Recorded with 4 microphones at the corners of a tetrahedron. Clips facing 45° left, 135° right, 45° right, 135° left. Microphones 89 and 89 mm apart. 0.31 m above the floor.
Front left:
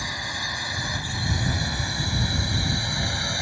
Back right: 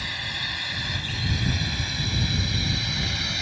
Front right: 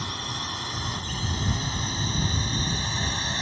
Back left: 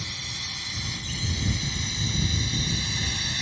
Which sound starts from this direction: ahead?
A drone, at 0.0 s.